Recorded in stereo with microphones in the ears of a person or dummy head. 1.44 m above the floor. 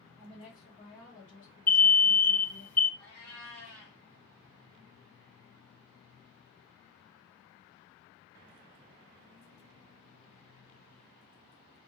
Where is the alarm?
10° left (ahead or behind), 0.5 m.